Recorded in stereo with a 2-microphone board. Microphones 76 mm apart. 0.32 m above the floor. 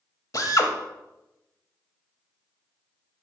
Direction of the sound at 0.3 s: 50° left (ahead or behind).